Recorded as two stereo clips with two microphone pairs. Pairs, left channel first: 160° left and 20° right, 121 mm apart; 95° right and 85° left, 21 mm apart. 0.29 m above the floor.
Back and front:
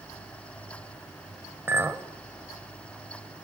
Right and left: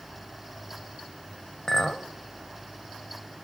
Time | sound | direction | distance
1.7 | a clink | 65° right | 0.7 m